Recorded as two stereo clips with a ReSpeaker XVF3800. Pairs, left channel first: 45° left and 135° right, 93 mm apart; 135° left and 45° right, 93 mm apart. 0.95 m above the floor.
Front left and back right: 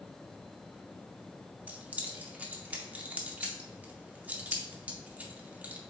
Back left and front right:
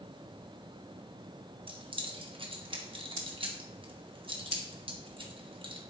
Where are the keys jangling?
65° right, 0.8 m.